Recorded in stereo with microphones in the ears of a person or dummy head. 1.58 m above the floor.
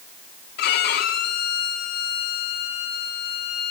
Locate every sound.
0.6 s a violin: 50° left (ahead or behind), 1.7 m